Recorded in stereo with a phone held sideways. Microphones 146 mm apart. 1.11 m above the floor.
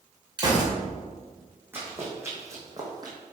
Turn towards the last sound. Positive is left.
turn(degrees=-30)  # may be behind; listen again after turning